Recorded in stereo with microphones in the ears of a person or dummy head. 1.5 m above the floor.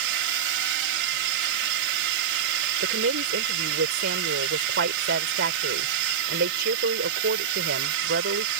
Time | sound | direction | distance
0.0 | a drone | 70° right (ahead or behind) | ?
2.8 | a woman speaking | 65° right (ahead or behind) | ?